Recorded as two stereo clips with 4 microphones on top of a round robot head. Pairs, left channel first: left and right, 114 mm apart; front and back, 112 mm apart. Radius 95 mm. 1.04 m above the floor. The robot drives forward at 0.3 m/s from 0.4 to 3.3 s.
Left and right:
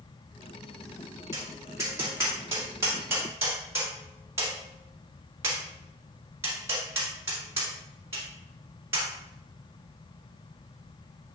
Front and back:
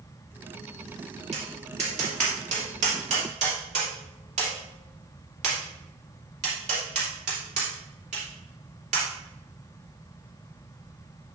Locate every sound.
1.3 s tapping: 155° right, 2.5 m; by 9.1 s 160° right, 3 m